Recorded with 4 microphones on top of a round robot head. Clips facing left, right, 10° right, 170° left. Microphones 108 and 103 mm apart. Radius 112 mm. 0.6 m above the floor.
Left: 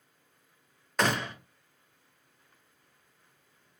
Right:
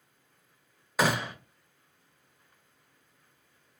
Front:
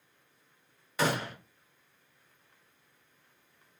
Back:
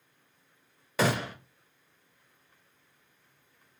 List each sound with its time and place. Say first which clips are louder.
1.0 s a gunshot: right 1 dB, back 2 dB; 175° right, 0.6 m